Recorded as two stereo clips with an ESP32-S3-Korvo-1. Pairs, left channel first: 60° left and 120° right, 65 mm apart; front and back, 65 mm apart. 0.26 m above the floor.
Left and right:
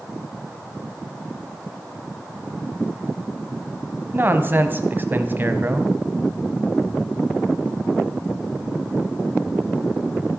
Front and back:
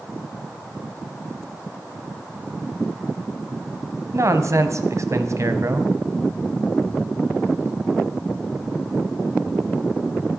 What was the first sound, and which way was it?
A man speaking, 170° right.